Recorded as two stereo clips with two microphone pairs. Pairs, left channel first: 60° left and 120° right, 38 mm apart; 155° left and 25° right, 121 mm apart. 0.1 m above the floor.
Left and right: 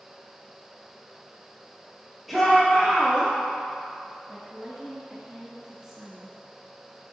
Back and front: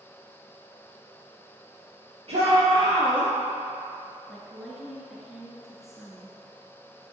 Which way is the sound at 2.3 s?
35° right.